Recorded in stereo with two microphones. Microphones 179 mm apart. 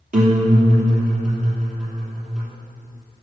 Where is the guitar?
50° right (ahead or behind), 3 m.